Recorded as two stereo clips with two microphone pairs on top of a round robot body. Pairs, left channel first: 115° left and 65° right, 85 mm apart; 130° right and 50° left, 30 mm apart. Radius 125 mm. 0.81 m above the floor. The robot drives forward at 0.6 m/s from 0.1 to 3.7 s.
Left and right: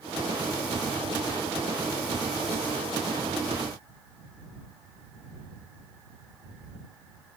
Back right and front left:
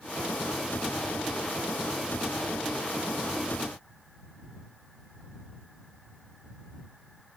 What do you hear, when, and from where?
Only background noise.